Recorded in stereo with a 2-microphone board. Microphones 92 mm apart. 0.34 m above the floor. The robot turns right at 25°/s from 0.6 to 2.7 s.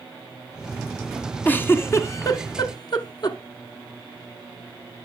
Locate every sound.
1.4 s a giggle: 20° left (ahead or behind), 0.8 m; by 3.4 s 50° left (ahead or behind), 0.8 m